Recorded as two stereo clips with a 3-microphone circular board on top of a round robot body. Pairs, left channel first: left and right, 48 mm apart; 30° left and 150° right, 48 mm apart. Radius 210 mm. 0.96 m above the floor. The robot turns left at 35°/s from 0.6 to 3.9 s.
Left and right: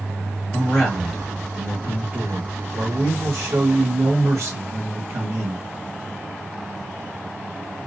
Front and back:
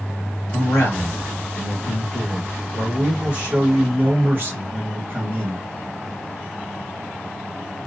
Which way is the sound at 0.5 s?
20° left.